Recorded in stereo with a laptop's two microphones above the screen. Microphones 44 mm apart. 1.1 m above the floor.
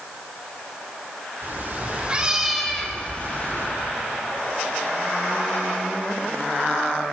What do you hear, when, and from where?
1.4 s a cat meowing: 50° right (ahead or behind), 1.0 m; by 3.7 s 50° left (ahead or behind), 1.0 m